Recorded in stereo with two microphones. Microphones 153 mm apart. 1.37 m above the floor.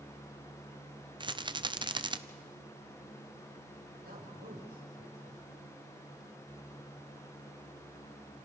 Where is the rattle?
30° right (ahead or behind), 0.5 m.